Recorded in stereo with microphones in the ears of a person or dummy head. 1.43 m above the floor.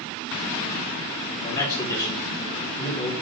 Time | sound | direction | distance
1.4 | a man speaking | 30° left (ahead or behind) | 2.0 m